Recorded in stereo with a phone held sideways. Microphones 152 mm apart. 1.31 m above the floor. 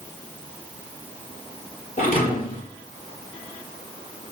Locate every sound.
2.0 s a thud: 55° left (ahead or behind), 4 m